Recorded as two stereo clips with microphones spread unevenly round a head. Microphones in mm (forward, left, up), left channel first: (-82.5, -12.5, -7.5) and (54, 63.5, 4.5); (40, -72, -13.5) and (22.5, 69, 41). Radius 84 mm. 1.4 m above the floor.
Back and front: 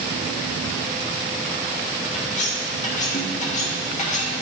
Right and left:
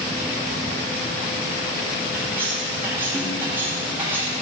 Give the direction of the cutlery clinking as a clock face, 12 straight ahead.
6 o'clock.